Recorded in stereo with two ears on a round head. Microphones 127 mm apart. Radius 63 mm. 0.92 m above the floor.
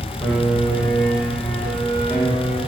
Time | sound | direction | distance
0.2 | a piano | 10° left (ahead or behind) | 3.5 m